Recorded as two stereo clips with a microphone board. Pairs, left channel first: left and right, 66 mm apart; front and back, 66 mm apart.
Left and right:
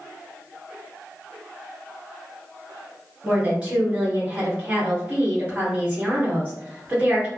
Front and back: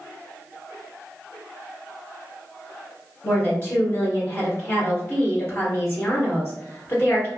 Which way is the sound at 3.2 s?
30° right.